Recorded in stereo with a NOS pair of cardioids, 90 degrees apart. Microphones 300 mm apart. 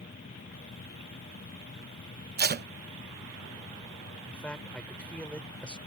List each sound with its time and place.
0.0 s a machine running: 30° left
2.4 s tape being pulled: 30° right
4.2 s a man speaking: 5° left